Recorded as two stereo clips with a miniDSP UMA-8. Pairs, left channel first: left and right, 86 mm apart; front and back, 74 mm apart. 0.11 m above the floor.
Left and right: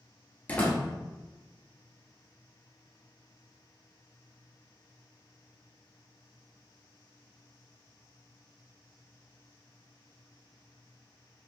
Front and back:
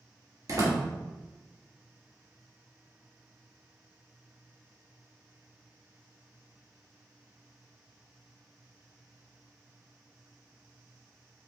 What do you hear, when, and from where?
0.5 s a door slam: 160° left, 1.4 m